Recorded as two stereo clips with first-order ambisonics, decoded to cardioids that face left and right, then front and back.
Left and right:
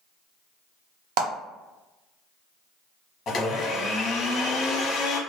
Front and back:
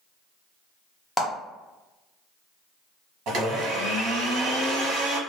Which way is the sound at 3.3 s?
145° left.